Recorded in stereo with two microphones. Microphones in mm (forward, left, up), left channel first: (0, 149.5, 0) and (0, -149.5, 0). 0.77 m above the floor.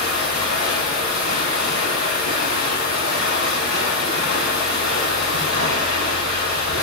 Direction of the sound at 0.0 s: 70° right (ahead or behind).